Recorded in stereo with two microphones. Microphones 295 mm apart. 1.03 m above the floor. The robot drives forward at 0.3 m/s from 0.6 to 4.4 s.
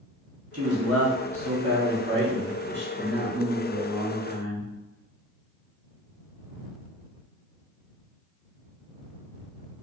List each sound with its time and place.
0.5 s a man speaking: 55° right (ahead or behind), 1.3 m; by 4.7 s 30° right (ahead or behind), 2 m